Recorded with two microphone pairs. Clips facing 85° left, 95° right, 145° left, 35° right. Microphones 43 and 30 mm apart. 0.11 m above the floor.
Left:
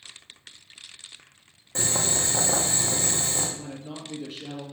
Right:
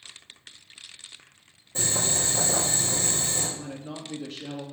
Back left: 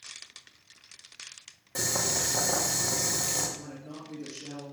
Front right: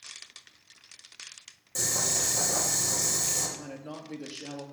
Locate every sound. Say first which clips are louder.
1.8 s boiling: left 1 dB, back left 1 dB; 90° left, 2.5 m
3.6 s a man speaking: even, front right 2 dB; straight ahead, 2.5 m